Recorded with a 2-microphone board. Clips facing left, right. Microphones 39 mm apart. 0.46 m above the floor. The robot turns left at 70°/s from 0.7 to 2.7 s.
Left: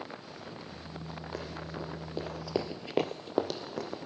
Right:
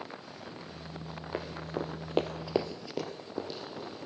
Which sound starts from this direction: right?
Running footsteps, at 1.3 s.